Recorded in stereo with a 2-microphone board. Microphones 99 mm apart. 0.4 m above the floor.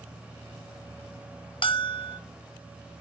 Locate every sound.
1.6 s a bell: 60° left (ahead or behind), 0.8 m